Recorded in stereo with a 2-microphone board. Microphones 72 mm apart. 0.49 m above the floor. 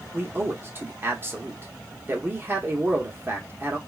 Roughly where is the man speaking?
Right.